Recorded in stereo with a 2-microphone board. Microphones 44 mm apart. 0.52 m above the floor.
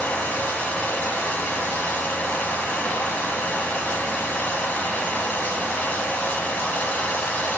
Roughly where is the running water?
Left.